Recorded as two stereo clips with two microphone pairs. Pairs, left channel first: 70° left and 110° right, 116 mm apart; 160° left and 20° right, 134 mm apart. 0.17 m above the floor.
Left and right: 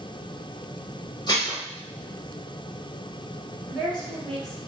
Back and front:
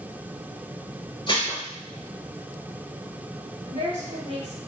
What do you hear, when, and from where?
1.3 s dishes clattering: 115° left, 1.8 m
3.7 s a woman speaking: 150° left, 1.9 m